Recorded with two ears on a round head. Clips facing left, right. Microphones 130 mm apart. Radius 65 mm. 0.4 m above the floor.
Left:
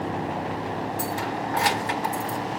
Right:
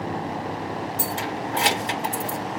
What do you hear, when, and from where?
1.0 s keys jangling: 30° right (ahead or behind), 0.8 m